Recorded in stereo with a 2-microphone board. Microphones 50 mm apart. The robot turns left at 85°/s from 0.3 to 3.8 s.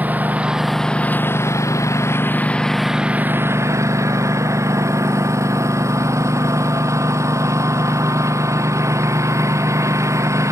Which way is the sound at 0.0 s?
145° right.